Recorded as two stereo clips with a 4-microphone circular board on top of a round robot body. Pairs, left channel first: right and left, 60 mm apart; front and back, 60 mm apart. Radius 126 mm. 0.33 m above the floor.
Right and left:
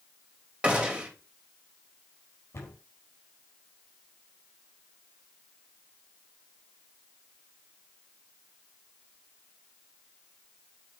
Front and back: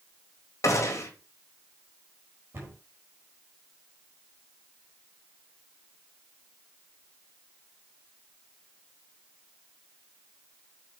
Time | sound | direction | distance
0.6 | a gunshot | 20° left | 3 m
2.5 | a cupboard door | 135° right | 4.5 m